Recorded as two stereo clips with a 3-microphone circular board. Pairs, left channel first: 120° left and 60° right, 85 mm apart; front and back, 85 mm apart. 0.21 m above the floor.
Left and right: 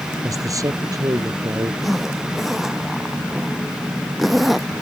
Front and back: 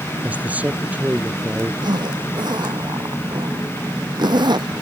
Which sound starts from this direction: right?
A man speaking, at 0.2 s.